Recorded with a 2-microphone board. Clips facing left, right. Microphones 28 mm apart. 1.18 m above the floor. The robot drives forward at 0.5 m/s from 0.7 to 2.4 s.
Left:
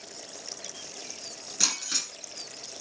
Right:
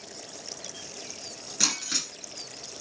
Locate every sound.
1.6 s breaking glass: 10° right (ahead or behind), 2 m; by 2.1 s 15° right (ahead or behind), 1.9 m